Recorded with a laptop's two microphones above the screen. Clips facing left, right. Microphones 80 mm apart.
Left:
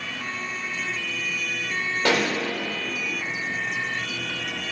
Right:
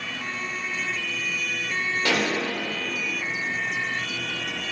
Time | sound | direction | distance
2.0 | a pop | 70° left (ahead or behind) | 2 m